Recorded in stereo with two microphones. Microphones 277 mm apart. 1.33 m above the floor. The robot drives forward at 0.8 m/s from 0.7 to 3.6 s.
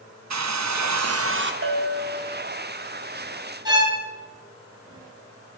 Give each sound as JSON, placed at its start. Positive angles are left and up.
{"t": 0.3, "sound": "a hair dryer", "side_deg": -75, "distance_m": 0.5}
{"t": 1.6, "sound": "a bell", "side_deg": -50, "distance_m": 0.7}
{"t": 3.6, "sound": "a violin", "side_deg": -15, "distance_m": 3.5}